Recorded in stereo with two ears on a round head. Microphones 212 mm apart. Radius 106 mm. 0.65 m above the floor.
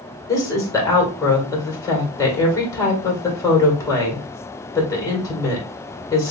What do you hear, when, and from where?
0.3 s a woman speaking: 15° left (ahead or behind), 2 m